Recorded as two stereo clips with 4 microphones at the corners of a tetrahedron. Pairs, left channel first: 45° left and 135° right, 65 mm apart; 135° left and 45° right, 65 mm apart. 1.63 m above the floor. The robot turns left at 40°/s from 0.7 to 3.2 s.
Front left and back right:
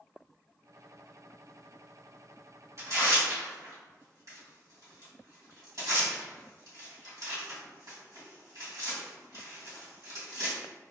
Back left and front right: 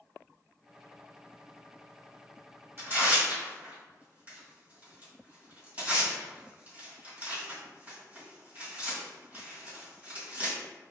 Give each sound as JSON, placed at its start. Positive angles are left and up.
{"t": 2.8, "sound": "tearing paper", "azimuth_deg": -95, "distance_m": 1.9}